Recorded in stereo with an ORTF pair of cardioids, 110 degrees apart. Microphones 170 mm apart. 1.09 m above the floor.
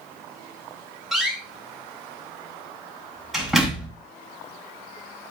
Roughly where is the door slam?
Ahead.